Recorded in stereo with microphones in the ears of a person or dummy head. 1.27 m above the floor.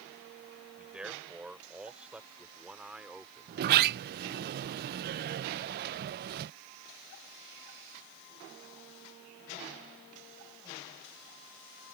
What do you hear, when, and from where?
0.8 s a man speaking: 5° right (ahead or behind); by 4.5 s 10° right (ahead or behind)
3.5 s a sliding door: 55° right (ahead or behind)